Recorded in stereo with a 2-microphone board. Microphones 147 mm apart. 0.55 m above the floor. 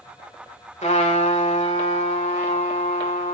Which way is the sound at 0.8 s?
50° left (ahead or behind).